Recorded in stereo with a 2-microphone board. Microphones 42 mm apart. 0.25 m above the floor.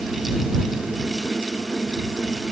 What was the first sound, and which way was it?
Only background noise.